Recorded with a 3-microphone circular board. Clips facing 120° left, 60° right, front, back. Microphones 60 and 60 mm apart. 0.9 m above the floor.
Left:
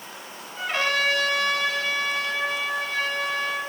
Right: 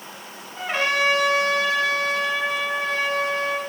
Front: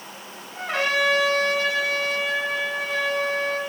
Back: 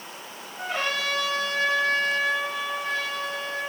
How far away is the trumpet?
About 3 m.